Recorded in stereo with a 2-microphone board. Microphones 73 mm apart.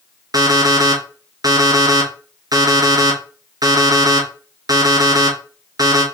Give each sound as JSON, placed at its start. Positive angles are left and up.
{"t": 0.3, "sound": "an alarm clock", "side_deg": -60, "distance_m": 1.7}